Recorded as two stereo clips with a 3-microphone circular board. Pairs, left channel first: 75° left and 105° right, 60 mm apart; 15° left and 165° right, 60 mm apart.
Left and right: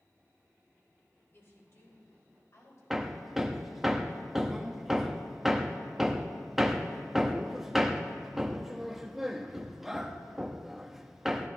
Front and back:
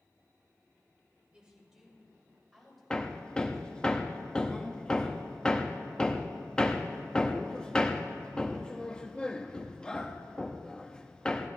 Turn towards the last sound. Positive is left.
turn(degrees=-30)